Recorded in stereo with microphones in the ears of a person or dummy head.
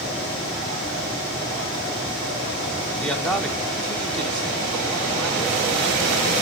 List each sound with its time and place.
3.0 s a man speaking: 5° left (ahead or behind), 1.5 m